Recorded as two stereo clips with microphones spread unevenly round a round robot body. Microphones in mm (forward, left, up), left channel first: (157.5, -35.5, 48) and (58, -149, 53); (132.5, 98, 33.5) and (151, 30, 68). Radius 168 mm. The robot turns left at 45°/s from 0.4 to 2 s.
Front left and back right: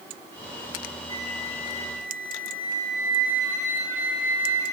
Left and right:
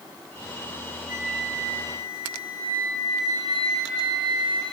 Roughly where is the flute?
Ahead.